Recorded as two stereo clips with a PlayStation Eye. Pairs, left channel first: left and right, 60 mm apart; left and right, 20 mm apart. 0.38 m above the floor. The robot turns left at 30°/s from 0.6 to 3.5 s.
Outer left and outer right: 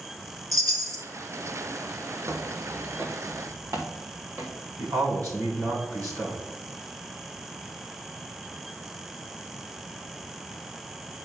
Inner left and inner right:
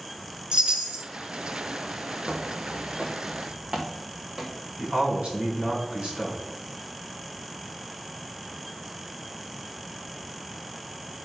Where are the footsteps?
55° right (ahead or behind), 1.2 m.